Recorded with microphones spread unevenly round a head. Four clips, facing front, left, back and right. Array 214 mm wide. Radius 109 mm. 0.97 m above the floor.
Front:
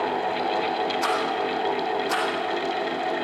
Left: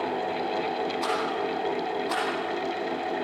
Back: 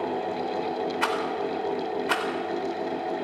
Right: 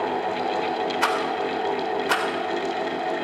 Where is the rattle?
110° right, 4 m.